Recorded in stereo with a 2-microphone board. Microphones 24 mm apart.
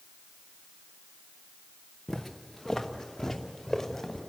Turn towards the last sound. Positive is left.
turn(degrees=10)  # may be behind; listen again after turning